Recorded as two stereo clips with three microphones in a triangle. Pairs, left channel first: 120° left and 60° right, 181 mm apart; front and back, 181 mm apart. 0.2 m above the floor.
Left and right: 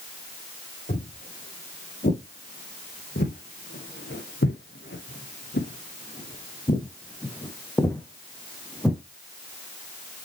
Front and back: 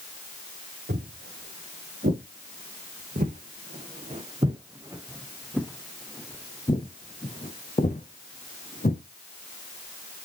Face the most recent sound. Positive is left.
turn(degrees=35)